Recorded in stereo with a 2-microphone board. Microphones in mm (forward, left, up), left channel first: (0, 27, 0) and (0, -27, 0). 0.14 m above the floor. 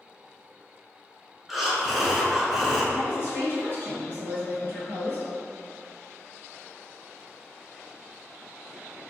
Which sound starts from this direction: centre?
Breathing, at 1.5 s.